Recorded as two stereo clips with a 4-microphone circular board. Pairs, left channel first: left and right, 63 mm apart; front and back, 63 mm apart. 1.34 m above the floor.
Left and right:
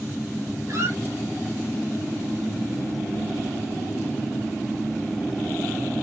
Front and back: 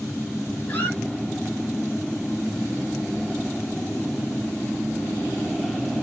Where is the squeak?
65° right, 3.5 m.